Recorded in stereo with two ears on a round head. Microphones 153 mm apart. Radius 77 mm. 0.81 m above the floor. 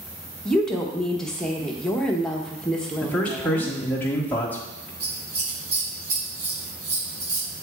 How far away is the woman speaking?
About 0.8 m.